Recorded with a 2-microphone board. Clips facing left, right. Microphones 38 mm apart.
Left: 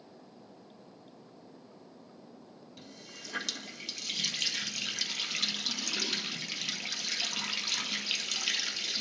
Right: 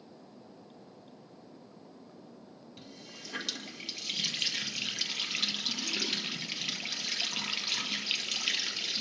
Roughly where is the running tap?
Centre.